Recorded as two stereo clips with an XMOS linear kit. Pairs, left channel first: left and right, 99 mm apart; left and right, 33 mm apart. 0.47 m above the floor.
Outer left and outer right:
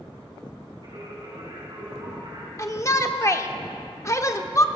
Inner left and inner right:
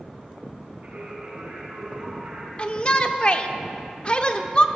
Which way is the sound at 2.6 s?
30° left (ahead or behind).